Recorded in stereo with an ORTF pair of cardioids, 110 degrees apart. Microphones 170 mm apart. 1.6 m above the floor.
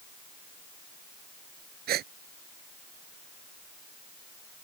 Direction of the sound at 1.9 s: 65° right.